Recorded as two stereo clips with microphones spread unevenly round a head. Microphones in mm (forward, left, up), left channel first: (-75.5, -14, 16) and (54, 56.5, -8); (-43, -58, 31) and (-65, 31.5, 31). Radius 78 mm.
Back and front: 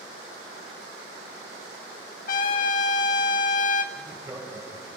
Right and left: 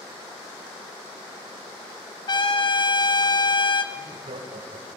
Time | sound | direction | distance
2.3 | a trumpet | 115° right | 1.4 m
3.9 | laughter | 105° left | 5 m